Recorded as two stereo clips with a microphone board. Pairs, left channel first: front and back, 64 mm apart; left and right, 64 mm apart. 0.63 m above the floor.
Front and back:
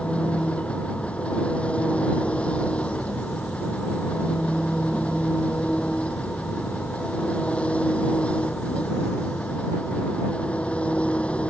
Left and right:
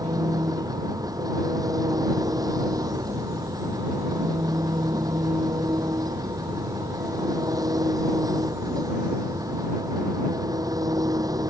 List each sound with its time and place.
0.0 s an engine running: 70° right